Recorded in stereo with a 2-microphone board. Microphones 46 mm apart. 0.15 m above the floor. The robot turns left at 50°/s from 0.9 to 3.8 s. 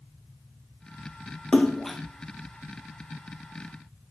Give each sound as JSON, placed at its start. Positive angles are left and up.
{"t": 1.5, "sound": "a splash", "side_deg": 25, "distance_m": 1.0}